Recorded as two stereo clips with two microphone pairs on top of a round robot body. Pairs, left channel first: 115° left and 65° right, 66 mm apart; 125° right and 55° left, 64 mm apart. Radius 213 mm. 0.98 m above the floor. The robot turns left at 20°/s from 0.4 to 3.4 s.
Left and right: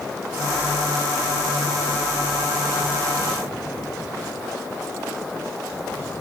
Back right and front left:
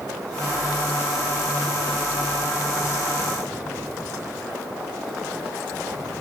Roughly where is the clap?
No clap in this recording.